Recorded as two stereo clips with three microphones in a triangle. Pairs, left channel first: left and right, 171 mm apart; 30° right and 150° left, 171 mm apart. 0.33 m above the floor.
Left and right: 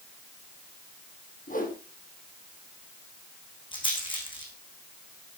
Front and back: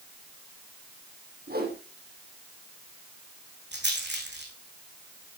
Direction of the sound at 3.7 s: 150° left.